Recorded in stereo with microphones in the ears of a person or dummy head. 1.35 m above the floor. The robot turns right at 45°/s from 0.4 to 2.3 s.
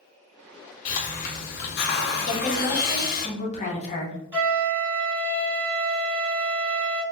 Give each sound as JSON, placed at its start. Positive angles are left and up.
{"t": 0.8, "sound": "a hiss", "azimuth_deg": 45, "distance_m": 0.6}
{"t": 2.3, "sound": "a woman speaking", "side_deg": 40, "distance_m": 0.9}
{"t": 4.3, "sound": "a flute", "side_deg": -15, "distance_m": 1.5}